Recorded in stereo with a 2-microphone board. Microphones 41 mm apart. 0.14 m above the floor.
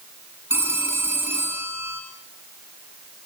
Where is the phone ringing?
85° right, 7 m.